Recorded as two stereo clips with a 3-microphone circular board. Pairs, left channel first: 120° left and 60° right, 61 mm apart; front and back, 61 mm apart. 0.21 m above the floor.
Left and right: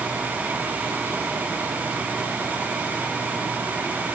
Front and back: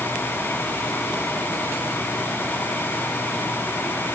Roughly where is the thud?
No thud in this recording.